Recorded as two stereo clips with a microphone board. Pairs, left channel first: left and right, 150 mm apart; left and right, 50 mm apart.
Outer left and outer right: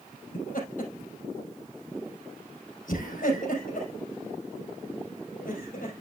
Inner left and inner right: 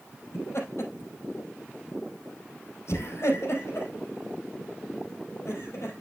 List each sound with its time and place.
0.3 s laughter: 65° left (ahead or behind), 4.5 m